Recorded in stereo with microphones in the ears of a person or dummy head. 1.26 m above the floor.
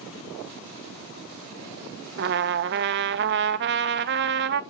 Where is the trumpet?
40° right (ahead or behind), 0.5 m.